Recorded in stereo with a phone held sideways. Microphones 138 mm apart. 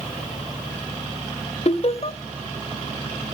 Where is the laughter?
45° left (ahead or behind), 1.1 m.